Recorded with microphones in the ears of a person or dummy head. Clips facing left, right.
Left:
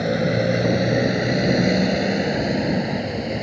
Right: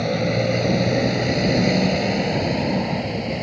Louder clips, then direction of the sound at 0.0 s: Left 1 dB; 15° left (ahead or behind).